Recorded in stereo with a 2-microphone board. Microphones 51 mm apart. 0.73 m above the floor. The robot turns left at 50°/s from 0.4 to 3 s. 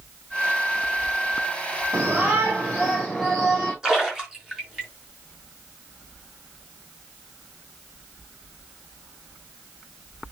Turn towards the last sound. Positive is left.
turn(degrees=-10)  # may be behind; listen again after turning